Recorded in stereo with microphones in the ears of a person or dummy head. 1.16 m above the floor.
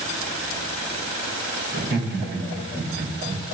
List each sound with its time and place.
1.7 s laughter: 50° right (ahead or behind), 3 m